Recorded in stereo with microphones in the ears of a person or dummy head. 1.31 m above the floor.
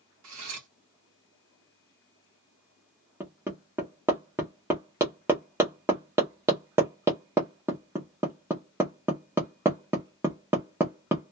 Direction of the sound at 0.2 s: 70° right (ahead or behind).